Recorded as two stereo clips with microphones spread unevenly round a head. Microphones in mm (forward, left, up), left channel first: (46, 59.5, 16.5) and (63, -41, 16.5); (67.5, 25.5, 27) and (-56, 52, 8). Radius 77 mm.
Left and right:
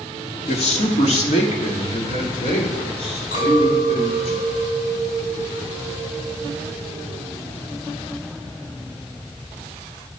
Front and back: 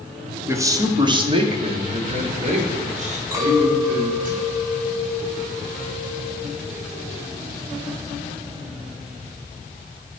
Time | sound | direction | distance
0.5 | a man speaking | 105° left | 1.7 m
3.3 | a clink | 105° left | 5 m